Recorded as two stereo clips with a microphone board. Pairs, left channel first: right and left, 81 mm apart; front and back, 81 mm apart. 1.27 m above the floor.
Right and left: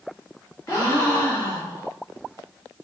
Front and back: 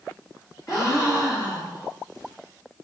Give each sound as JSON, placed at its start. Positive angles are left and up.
{"t": 0.7, "sound": "a gasp", "azimuth_deg": -40, "distance_m": 1.3}